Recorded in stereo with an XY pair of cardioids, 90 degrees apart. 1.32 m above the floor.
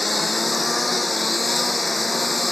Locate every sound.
0.0 s a lawn mower: 20° left